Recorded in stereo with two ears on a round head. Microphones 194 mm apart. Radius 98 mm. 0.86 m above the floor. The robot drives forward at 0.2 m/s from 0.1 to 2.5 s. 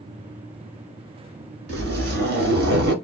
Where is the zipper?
55° right (ahead or behind), 1.9 m.